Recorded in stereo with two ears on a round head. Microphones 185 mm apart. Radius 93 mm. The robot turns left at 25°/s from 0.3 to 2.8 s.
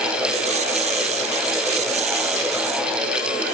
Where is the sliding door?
No sliding door in this recording.